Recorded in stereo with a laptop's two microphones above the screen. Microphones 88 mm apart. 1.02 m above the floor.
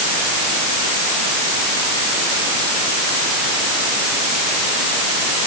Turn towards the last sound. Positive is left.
No sound to turn to.